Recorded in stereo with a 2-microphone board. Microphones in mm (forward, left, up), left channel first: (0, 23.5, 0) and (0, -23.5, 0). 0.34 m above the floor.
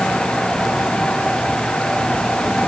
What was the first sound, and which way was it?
Only background noise.